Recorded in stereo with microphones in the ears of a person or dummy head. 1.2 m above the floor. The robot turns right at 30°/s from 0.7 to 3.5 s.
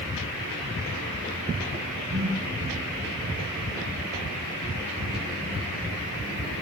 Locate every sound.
2.1 s a whoosh: 55° right (ahead or behind), 8 m; by 2.4 s 45° right (ahead or behind), 8 m